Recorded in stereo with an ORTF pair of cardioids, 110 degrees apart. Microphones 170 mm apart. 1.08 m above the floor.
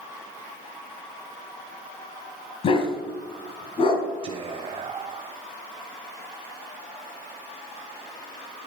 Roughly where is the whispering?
Ahead right.